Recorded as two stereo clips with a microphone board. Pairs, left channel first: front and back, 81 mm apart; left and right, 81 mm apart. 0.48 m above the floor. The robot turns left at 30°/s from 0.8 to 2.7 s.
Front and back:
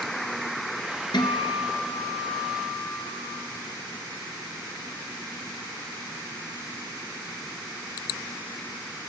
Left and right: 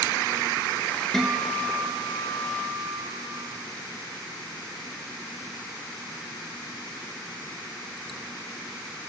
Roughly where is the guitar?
Ahead.